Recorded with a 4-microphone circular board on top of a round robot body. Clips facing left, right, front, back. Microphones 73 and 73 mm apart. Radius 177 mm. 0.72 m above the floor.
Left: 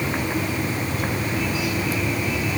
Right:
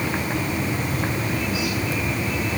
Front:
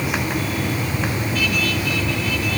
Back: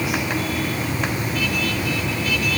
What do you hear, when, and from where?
Only background noise.